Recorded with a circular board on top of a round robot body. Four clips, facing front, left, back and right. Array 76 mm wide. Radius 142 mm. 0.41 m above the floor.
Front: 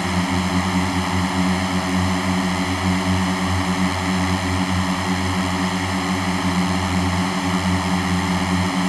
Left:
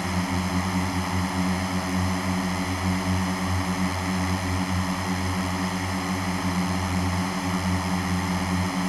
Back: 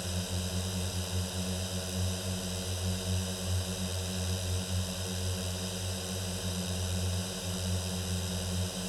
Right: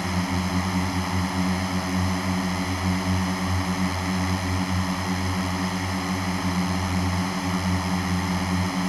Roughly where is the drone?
Ahead.